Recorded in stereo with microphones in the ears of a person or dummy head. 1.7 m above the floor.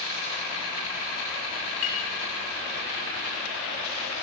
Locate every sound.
1.8 s a clink: 45° left (ahead or behind), 1.0 m